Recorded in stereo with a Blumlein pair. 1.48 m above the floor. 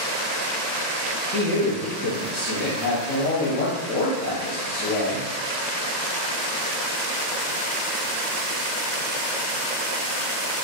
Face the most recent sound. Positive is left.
turn(degrees=30)